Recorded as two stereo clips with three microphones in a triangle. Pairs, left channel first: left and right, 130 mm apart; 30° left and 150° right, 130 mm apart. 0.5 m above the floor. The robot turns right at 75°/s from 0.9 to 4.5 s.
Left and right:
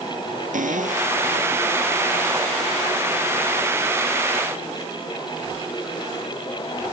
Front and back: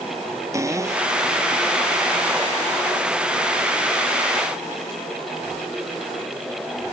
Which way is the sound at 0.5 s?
85° right.